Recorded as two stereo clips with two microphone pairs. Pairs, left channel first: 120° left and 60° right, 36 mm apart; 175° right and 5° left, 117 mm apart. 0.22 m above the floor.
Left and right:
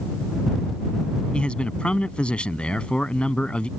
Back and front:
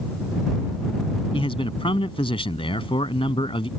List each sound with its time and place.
1.3 s a man speaking: 170° left